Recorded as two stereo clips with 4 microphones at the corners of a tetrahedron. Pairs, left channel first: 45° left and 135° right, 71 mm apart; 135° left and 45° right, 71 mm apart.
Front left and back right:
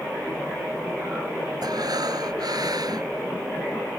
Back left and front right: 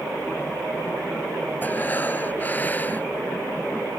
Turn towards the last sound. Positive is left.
turn(degrees=-160)